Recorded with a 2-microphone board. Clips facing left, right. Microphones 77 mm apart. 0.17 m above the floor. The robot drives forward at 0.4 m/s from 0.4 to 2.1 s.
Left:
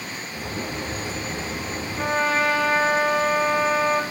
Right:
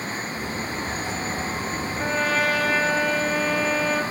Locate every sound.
2.0 s a trumpet: 35° left (ahead or behind), 1.9 m